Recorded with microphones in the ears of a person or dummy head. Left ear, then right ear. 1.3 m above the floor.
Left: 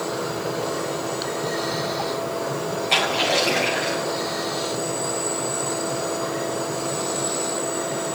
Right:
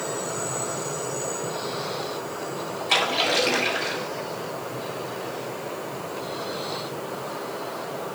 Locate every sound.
2.9 s a splash: 35° right (ahead or behind), 4.5 m